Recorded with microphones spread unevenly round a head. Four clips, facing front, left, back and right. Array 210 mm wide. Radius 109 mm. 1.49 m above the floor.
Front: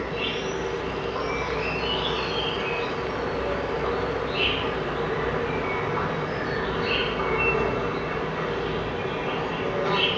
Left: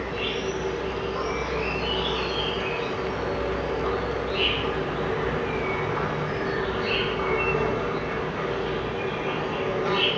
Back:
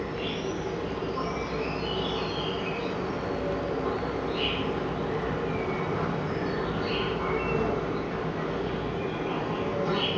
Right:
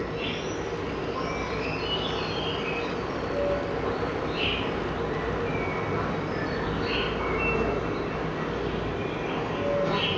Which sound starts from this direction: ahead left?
An insect, at 0.0 s.